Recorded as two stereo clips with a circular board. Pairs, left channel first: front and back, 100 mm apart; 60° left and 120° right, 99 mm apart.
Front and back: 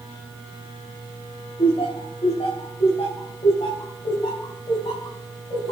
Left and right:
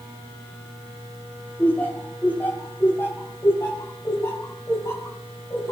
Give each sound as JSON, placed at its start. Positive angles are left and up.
{"t": 1.6, "sound": "laughter", "azimuth_deg": -15, "distance_m": 3.5}